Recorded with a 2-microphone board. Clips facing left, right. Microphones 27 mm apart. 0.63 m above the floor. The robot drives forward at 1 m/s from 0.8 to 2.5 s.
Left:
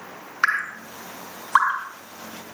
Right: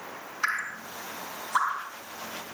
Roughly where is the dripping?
Left.